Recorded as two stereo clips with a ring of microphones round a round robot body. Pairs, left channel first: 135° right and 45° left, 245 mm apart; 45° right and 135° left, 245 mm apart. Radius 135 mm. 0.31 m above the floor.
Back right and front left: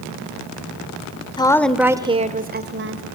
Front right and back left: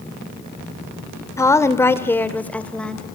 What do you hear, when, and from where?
1.4 s a woman speaking: 100° right, 1.4 m; by 3.1 s 40° left, 2 m